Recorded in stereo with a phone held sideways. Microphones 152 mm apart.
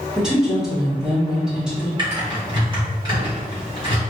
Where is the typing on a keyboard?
30° right (ahead or behind), 1.4 m.